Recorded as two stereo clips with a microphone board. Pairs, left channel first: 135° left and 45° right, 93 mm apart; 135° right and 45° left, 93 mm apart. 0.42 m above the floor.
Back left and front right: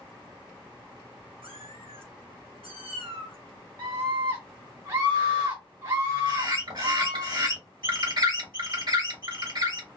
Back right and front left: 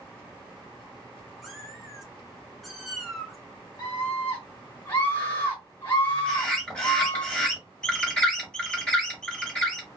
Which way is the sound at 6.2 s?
60° right.